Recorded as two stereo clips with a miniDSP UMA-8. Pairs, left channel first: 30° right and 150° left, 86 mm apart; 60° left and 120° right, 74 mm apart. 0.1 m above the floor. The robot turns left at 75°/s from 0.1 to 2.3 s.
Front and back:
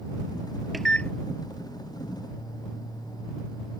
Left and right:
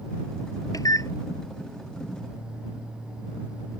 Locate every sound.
0.7 s a microwave: 60° left; by 1.1 s 35° left